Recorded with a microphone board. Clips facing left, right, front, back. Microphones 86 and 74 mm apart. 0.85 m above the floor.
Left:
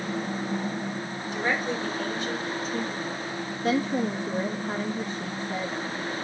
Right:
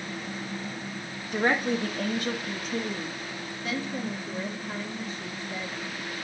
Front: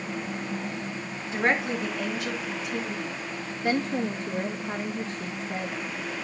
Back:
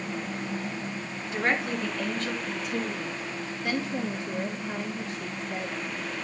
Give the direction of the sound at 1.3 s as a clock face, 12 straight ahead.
2 o'clock.